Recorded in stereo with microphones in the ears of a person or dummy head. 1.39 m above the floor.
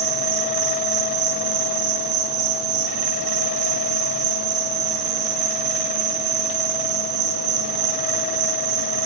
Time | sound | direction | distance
0.0 | an insect | 80° right | 2 m